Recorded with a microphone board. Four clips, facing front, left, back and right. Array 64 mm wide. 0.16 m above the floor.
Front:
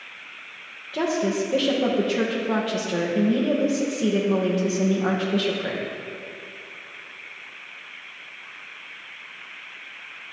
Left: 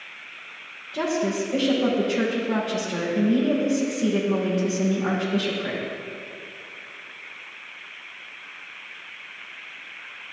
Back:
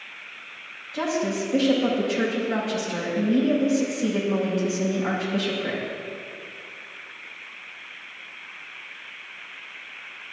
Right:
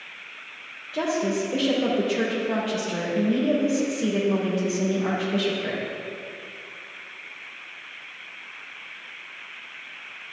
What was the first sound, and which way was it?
A woman speaking, 20° right.